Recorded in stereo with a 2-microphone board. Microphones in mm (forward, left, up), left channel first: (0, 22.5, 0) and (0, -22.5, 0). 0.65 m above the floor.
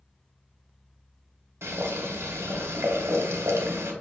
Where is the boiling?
75° right (ahead or behind), 0.9 m.